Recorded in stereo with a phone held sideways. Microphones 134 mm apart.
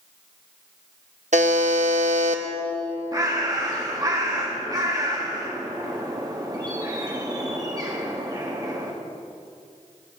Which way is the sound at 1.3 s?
65° right (ahead or behind).